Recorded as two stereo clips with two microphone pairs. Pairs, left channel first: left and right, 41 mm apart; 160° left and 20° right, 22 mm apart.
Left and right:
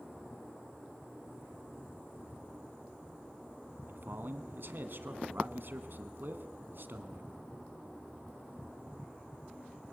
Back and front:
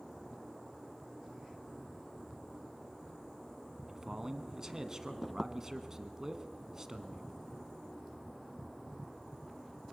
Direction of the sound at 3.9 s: 80° right.